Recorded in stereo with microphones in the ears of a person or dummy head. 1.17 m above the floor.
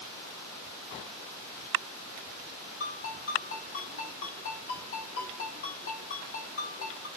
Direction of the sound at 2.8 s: 70° left (ahead or behind).